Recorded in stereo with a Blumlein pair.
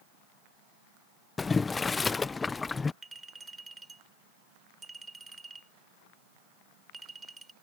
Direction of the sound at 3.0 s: 10° right.